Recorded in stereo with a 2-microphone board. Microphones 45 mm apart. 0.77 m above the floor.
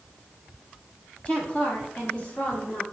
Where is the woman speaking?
25° left (ahead or behind), 1.2 m; by 2.8 s 45° left (ahead or behind), 2 m.